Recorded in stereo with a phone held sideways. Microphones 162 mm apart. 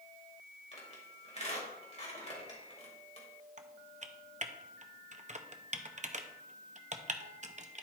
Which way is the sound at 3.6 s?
45° right (ahead or behind).